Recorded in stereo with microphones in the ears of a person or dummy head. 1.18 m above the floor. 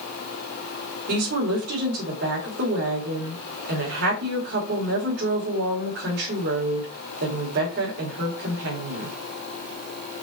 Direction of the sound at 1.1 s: 60° right (ahead or behind).